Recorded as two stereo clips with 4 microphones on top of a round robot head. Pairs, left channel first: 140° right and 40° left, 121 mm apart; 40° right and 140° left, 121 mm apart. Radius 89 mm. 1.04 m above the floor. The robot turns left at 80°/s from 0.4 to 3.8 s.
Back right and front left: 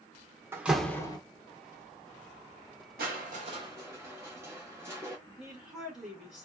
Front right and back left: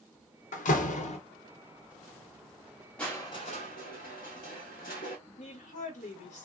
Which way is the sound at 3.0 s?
40° left.